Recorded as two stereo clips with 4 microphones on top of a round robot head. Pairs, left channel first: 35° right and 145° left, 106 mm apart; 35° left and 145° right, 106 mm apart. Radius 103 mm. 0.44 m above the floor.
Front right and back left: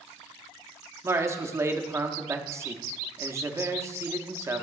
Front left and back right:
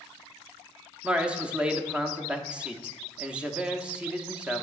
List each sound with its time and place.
1.0 s a man speaking: 150° left, 1.0 m